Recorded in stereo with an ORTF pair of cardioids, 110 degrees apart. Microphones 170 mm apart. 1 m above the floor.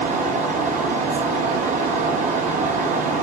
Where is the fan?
50° right, 0.8 m.